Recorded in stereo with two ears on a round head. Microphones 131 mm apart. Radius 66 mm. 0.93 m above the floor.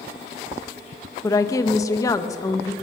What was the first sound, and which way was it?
A woman speaking, 20° left (ahead or behind).